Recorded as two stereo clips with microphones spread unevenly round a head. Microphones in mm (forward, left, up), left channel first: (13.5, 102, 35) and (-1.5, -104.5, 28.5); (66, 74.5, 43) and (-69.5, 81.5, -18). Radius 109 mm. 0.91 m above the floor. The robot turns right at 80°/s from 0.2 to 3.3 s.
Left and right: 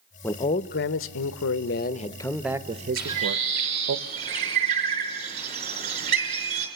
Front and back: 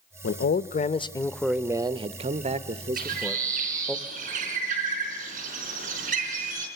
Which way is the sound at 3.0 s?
Straight behind.